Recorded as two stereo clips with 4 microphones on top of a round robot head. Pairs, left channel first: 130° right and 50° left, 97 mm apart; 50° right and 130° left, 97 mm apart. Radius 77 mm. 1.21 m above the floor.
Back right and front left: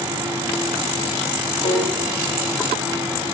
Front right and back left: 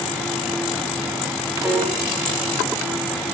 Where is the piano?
150° right, 6 m.